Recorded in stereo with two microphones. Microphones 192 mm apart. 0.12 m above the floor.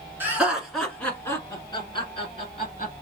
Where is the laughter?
10° right (ahead or behind), 1.8 m; by 2.9 s 40° left (ahead or behind), 2.5 m.